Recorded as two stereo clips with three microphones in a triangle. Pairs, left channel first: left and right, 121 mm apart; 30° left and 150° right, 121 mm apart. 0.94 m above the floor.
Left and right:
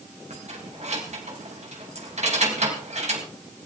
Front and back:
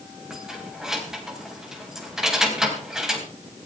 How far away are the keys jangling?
About 4 m.